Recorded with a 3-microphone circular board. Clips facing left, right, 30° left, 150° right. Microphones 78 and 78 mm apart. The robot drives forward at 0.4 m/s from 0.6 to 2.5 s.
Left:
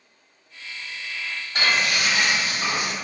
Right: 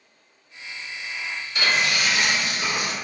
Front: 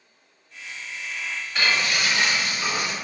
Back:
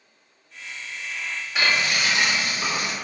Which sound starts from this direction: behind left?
Frying, at 1.6 s.